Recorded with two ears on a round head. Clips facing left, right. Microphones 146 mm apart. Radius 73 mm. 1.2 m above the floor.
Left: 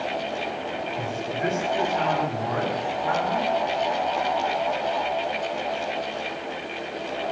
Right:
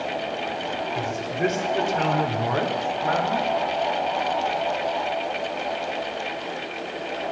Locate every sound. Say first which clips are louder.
0.9 s a man speaking: right 2 dB; 55° right (ahead or behind), 5 m; by 3.5 s 40° right (ahead or behind), 3.5 m